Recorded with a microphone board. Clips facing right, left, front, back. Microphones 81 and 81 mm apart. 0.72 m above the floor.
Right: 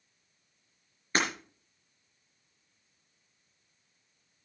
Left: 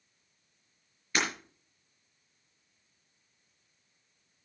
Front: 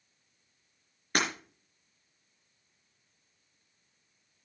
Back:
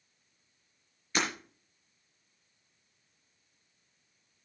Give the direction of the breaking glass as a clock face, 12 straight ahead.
1 o'clock.